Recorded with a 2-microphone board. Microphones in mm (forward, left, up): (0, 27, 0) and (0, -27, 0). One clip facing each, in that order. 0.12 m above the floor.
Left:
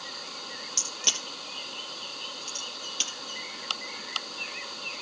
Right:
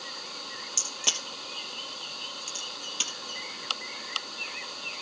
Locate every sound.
0.8 s a crack: 10° right (ahead or behind), 3 m